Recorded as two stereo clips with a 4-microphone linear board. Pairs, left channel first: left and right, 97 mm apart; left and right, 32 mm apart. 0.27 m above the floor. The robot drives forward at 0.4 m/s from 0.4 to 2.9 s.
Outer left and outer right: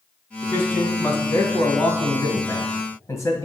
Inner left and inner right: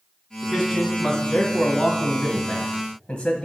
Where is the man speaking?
20° left (ahead or behind), 2 m; by 3.5 s 35° left (ahead or behind), 1.5 m.